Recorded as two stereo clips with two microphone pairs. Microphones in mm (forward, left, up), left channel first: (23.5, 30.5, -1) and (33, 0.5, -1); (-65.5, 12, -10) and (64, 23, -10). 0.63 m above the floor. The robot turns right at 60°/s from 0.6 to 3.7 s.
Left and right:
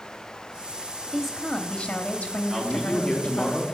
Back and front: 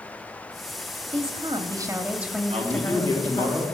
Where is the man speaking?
Straight ahead, 1.6 m; by 3.6 s 65° left, 1.6 m.